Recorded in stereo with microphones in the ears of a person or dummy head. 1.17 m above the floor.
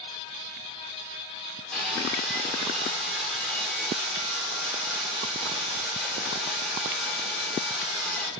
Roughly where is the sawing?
Centre.